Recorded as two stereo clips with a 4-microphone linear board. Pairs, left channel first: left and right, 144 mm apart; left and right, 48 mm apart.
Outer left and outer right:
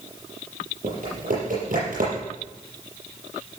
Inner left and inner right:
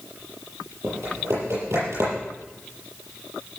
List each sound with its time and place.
0.8 s typing on a keyboard: 70° right (ahead or behind), 7 m